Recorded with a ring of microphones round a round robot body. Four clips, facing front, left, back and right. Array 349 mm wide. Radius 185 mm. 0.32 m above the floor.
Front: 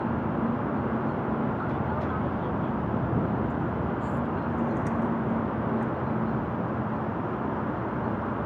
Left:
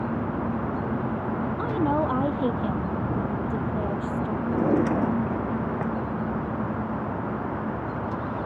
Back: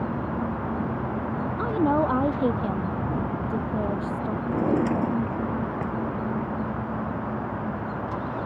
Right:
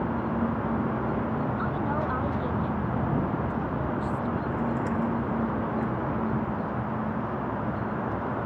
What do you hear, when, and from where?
1.6 s a woman speaking: 155° left
4.5 s a drawer: 125° left